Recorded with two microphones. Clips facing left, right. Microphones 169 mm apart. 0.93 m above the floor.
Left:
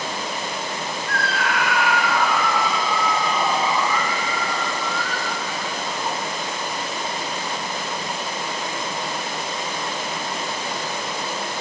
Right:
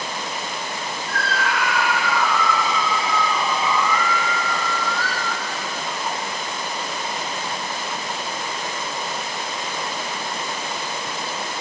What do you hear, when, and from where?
1.1 s a scream: 70° left (ahead or behind), 5.5 m; by 6.2 s 5° left (ahead or behind), 4 m